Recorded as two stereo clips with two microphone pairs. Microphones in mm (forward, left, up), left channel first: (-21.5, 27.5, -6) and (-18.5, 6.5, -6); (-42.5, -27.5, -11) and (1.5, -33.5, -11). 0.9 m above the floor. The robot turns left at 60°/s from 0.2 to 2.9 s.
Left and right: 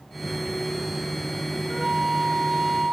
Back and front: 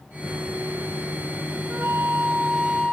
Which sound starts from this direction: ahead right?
A flute, at 1.7 s.